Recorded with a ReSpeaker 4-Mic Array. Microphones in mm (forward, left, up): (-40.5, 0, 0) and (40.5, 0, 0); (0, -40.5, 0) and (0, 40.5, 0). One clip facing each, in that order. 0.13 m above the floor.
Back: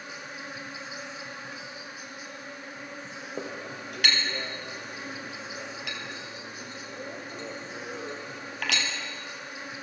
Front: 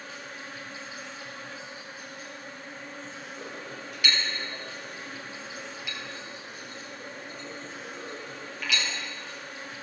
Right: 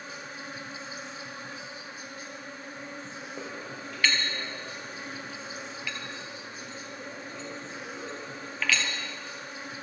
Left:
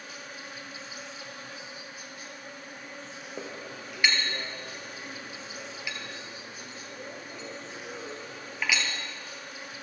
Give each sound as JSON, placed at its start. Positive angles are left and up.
{"t": 0.0, "sound": "an insect", "azimuth_deg": -115, "distance_m": 1.5}
{"t": 3.4, "sound": "a clink", "azimuth_deg": 165, "distance_m": 2.0}